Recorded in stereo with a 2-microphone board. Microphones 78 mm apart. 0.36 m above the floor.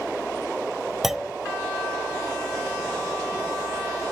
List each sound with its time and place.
1.0 s a clunk: 5° right (ahead or behind)